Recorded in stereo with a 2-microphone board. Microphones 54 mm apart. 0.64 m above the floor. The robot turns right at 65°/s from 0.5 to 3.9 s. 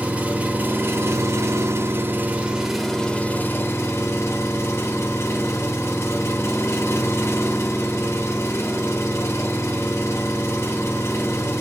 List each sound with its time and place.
0.0 s an engine running: 150° right, 0.8 m; by 11.6 s 70° left, 0.8 m